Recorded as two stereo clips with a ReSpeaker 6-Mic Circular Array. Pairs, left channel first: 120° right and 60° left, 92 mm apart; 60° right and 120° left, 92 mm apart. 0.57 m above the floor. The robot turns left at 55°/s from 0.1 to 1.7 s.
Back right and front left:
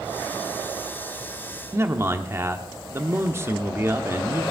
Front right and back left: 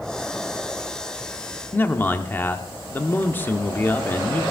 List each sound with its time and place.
1.7 s a man speaking: 5° left, 0.9 m